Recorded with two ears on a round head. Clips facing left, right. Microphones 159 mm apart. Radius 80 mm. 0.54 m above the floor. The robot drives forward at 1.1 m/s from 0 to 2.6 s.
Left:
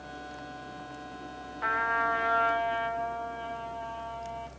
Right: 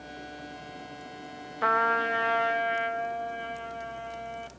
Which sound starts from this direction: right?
A trumpet, at 1.6 s.